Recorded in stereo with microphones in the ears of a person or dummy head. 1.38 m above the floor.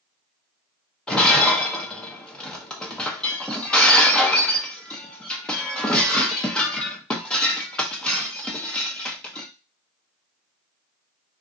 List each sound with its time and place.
1.1 s breaking glass: 5° left (ahead or behind), 0.8 m